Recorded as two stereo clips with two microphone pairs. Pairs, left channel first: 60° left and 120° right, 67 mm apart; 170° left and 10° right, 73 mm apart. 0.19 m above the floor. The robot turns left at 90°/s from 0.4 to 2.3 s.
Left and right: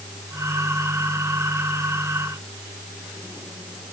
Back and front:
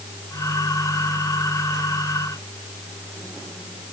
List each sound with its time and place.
Only background noise.